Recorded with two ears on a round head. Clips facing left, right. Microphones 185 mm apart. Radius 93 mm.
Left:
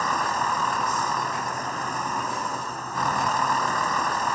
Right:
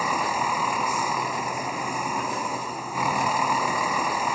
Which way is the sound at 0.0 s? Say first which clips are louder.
Right 1 dB; 10° right (ahead or behind).